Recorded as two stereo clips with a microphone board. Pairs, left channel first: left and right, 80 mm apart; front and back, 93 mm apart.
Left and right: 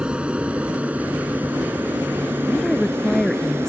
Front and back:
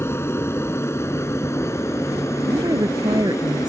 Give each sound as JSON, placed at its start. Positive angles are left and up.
{"t": 0.0, "sound": "an aircraft", "azimuth_deg": -25}
{"t": 2.5, "sound": "a woman speaking", "azimuth_deg": 175}